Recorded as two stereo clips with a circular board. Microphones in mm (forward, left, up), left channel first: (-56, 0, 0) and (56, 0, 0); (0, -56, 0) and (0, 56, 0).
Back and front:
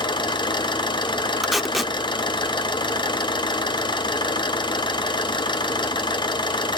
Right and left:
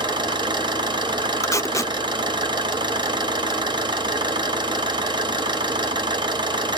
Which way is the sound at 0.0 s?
135° left.